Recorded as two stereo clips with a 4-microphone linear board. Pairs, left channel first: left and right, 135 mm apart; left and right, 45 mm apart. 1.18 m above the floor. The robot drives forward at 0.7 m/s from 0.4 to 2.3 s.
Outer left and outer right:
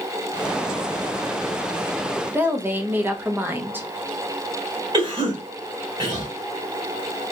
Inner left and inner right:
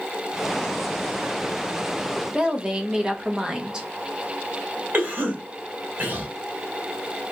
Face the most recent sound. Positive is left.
turn(degrees=-40)  # may be behind; listen again after turning